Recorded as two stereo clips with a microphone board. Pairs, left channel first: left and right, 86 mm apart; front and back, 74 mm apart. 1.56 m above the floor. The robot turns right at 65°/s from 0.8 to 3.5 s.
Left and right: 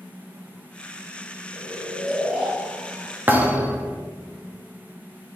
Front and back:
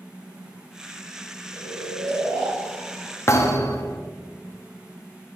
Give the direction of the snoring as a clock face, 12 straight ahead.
7 o'clock.